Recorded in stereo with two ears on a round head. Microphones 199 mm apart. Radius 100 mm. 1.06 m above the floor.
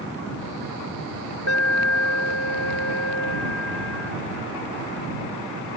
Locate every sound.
1.5 s an alarm: 75° left (ahead or behind)